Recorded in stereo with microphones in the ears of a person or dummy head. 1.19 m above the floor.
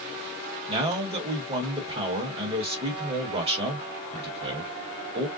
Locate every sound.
0.7 s a man speaking: 30° right (ahead or behind), 1.2 m